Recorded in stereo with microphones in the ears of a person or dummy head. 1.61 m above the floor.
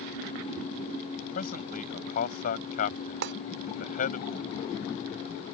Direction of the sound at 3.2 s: 55° right (ahead or behind).